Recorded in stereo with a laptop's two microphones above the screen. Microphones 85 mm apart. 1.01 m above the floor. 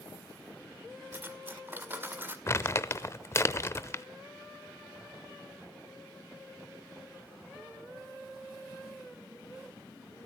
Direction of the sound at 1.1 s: 25° right (ahead or behind).